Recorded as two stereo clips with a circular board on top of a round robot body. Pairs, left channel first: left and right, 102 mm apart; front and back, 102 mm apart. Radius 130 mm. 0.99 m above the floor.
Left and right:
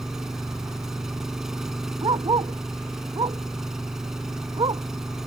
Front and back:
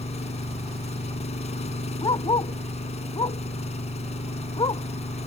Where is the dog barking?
45° right.